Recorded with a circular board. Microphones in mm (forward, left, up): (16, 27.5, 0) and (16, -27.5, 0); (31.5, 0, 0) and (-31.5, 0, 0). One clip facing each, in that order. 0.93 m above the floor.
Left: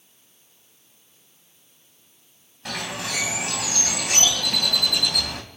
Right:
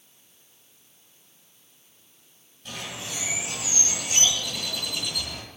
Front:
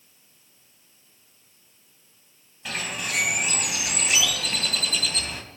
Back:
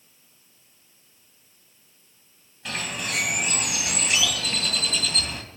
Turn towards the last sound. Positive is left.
turn(degrees=85)